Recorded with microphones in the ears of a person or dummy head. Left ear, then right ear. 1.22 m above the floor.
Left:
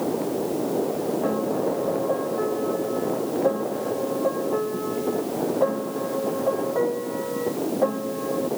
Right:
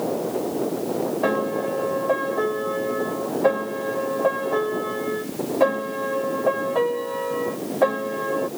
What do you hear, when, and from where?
1.2 s a piano: 60° right (ahead or behind)